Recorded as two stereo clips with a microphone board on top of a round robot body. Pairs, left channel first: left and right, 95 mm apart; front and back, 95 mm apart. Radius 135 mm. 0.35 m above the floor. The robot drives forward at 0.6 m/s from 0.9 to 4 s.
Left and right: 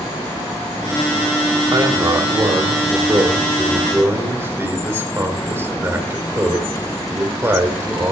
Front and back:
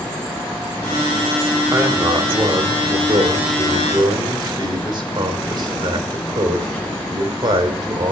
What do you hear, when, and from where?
1.7 s a man speaking: 125° right, 2.0 m; by 8.1 s 150° right, 3 m